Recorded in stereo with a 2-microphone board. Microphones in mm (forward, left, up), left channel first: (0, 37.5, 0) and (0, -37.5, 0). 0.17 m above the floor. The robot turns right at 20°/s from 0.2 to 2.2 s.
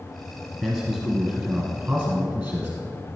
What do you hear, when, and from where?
0.6 s a man speaking: 165° left, 1.4 m; by 2.8 s 160° right, 1.4 m